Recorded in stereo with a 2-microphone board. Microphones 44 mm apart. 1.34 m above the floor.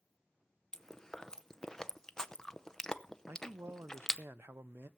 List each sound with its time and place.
0.7 s chewing: 15° left (ahead or behind), 0.6 m
3.3 s a man speaking: 70° right (ahead or behind), 0.5 m